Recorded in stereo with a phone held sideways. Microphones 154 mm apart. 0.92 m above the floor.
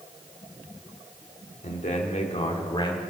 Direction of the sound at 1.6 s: 65° left (ahead or behind).